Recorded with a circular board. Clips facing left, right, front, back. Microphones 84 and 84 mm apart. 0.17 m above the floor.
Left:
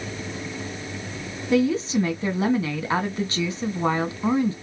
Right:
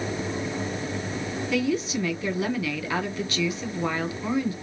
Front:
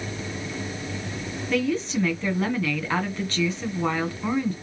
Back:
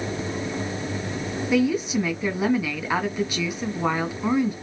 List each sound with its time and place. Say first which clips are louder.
1.5 s a woman speaking: left 6 dB, back 3 dB; 110° left, 1.9 m